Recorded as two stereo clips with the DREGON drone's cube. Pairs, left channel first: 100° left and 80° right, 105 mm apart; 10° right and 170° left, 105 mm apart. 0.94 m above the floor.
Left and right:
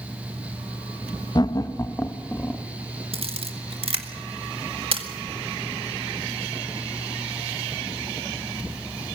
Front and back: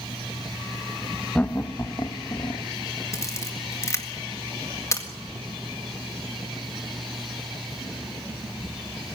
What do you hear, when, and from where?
1.4 s laughter: 65° left, 0.7 m; by 2.6 s 25° left, 1.2 m
3.1 s a camera shutter: 70° right, 1.8 m